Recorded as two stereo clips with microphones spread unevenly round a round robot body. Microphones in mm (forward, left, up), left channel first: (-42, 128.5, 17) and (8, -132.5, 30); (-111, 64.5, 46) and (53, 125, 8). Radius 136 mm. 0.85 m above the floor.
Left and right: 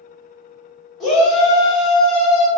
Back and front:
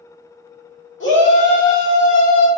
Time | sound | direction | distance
1.0 | a shout | 170° right | 1.9 m